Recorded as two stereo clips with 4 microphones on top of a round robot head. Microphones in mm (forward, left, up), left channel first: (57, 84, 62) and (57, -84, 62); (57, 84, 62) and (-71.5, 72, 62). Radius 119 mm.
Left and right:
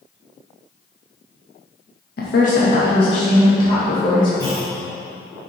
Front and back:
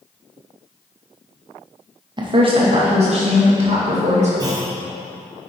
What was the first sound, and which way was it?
A woman speaking, 130° left.